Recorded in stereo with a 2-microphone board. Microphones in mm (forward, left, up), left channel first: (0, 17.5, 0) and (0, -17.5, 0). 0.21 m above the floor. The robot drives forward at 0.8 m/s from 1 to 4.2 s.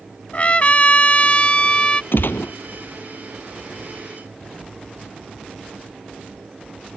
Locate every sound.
0.3 s a trumpet: 40° left (ahead or behind); by 2.0 s 30° left (ahead or behind)
2.1 s a gunshot: 75° left (ahead or behind); by 2.5 s 65° left (ahead or behind)